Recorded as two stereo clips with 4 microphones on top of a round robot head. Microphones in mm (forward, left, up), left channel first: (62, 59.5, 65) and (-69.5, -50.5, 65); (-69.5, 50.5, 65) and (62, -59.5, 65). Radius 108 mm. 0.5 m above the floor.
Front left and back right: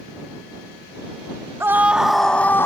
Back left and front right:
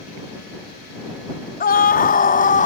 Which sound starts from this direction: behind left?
A scream, at 1.6 s.